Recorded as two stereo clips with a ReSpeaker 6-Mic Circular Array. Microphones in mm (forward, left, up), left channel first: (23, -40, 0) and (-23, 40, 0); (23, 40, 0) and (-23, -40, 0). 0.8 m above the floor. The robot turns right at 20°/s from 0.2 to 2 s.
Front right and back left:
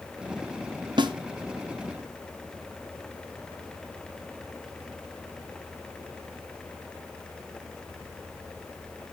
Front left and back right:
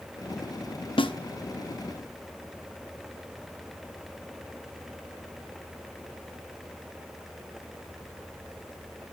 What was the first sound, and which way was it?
A snare drum, 85° left.